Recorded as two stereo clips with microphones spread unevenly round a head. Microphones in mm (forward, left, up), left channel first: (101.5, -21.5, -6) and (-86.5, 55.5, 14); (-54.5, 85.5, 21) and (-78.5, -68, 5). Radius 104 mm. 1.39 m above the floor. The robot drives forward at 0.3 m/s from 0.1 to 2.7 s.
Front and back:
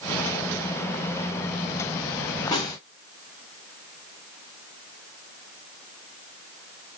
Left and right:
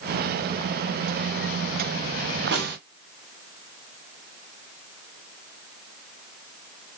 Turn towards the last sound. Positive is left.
turn(degrees=-95)